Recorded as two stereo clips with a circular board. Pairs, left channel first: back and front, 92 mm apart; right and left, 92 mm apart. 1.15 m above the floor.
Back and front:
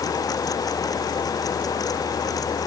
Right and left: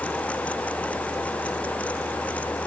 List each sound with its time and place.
Only background noise.